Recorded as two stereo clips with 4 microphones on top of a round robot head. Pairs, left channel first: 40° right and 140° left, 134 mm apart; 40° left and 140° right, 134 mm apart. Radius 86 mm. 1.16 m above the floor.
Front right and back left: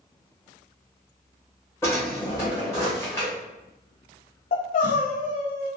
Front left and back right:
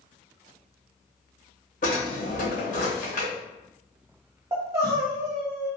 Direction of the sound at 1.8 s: 30° left.